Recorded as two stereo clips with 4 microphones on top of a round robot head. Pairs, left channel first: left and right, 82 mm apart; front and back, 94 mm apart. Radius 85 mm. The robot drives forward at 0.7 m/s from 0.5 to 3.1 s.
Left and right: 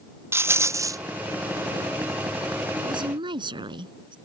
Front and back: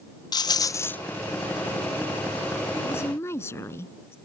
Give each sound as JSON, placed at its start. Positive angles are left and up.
{"t": 0.3, "sound": "a rattle", "azimuth_deg": -35}
{"t": 2.8, "sound": "a woman speaking", "azimuth_deg": -65}